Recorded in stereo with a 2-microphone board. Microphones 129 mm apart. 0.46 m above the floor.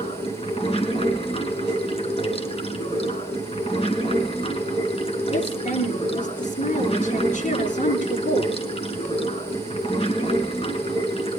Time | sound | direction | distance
0.0 | running water | 50° left (ahead or behind) | 3 m
5.3 | a woman speaking | 85° left | 7 m